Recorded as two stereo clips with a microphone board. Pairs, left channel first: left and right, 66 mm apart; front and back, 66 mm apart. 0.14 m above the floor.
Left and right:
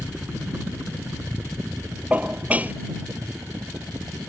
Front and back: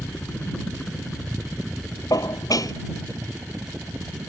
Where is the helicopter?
45° right; by 4.3 s 115° right.